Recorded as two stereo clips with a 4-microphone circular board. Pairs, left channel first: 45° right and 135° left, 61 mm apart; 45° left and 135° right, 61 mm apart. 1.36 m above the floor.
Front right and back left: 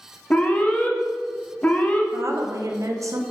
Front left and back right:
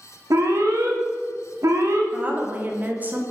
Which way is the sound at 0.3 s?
110° right.